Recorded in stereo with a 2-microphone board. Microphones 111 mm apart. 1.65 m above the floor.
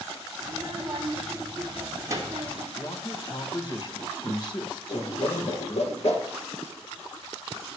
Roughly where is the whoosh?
Left.